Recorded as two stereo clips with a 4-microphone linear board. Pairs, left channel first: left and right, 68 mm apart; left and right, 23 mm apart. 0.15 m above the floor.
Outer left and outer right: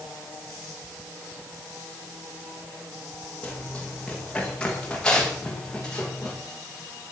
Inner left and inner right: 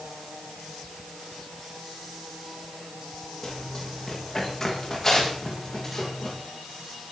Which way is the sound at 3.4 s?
15° left (ahead or behind).